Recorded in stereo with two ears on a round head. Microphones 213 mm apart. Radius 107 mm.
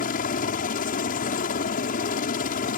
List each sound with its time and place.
0.0 s a helicopter: 35° left (ahead or behind)